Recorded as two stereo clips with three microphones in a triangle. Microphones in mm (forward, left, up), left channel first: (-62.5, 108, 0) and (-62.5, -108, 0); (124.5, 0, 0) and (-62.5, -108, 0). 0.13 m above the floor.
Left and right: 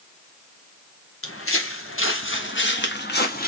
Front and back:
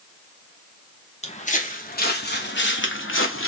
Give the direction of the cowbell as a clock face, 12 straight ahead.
No cowbell in this recording.